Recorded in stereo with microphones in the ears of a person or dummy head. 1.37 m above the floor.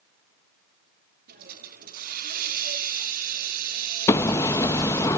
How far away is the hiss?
About 2 m.